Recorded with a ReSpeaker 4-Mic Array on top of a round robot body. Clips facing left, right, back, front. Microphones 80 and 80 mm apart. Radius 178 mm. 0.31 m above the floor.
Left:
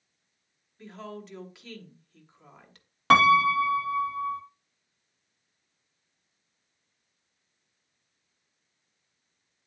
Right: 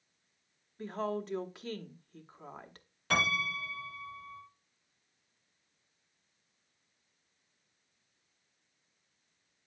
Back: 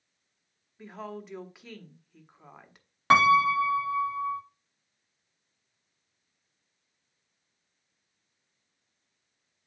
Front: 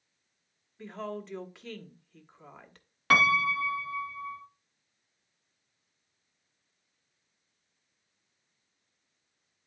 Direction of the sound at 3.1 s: 115° left.